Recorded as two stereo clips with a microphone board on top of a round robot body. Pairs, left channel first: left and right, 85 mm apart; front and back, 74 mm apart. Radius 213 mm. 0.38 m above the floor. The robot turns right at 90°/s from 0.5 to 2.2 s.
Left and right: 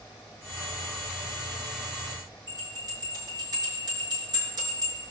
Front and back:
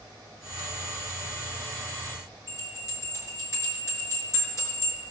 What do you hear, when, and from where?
2.5 s a bell: 50° right, 6 m